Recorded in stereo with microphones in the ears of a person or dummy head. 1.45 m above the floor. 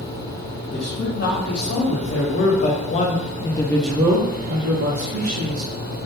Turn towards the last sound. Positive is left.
turn(degrees=-75)  # may be behind; listen again after turning